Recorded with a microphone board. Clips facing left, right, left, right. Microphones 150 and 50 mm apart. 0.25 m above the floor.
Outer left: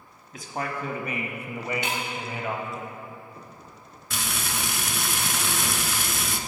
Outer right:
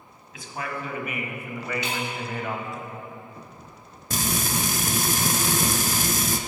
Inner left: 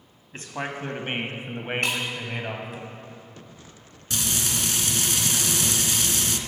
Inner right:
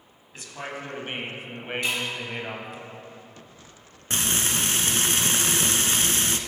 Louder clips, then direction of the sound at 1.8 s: Even, inner left 1 dB; 50° left (ahead or behind).